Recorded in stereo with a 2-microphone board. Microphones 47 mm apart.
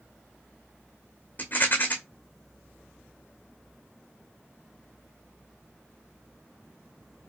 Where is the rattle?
40° left (ahead or behind), 1.9 m.